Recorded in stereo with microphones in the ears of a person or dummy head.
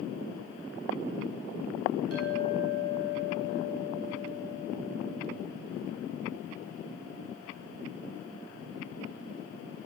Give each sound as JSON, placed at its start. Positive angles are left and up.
{"t": 2.1, "sound": "a clink", "side_deg": -70, "distance_m": 7.0}